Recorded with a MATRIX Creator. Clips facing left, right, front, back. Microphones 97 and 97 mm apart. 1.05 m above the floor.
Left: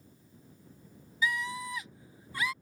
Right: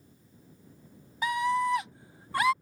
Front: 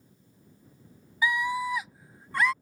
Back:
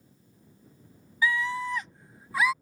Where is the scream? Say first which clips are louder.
Right 7 dB, even; 65° right; by 2.5 s 95° right.